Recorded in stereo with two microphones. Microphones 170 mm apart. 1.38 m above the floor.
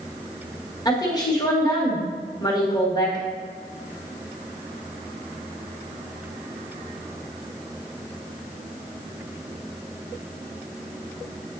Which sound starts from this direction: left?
A woman speaking, at 0.8 s.